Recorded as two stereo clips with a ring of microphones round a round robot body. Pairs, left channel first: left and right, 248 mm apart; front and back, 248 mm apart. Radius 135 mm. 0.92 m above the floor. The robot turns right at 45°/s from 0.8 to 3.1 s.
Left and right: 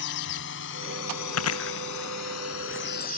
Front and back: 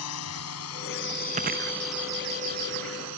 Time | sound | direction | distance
0.0 | a drone | 40° left | ?
1.3 | chewing | 110° left | ?